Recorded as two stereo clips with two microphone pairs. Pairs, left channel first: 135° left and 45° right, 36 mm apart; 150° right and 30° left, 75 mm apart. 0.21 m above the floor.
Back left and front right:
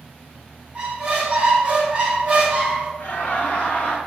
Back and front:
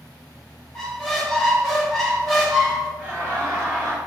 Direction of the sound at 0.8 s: 75° right.